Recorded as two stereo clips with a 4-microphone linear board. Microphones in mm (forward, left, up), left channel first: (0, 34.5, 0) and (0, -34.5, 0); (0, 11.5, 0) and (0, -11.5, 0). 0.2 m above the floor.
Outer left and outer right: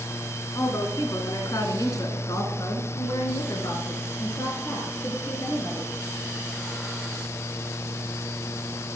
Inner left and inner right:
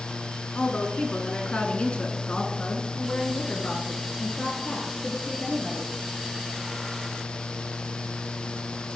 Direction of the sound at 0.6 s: 45° left (ahead or behind).